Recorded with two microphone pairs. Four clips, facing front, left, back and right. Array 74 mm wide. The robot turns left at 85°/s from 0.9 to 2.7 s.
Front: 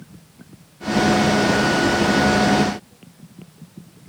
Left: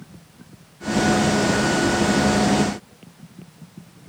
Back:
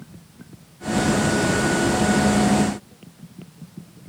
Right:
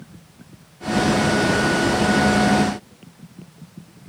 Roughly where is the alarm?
I don't hear an alarm.